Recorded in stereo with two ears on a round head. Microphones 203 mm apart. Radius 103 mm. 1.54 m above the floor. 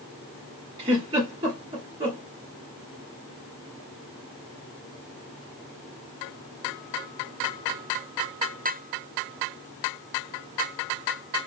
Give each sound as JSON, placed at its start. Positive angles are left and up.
{"t": 0.8, "sound": "a giggle", "side_deg": -20, "distance_m": 1.2}